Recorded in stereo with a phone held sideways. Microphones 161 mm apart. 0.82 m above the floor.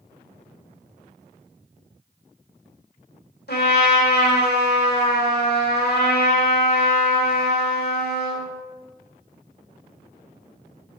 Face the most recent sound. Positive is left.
turn(degrees=70)  # may be behind; listen again after turning